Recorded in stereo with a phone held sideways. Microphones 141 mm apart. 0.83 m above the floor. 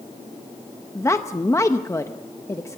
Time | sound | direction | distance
0.9 | a woman speaking | 20° left (ahead or behind) | 0.7 m